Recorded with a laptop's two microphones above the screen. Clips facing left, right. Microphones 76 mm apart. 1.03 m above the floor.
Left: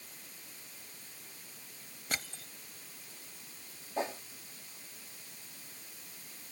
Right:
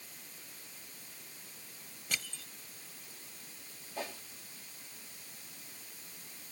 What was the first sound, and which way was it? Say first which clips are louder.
Crushing: left 1 dB; 40° left (ahead or behind).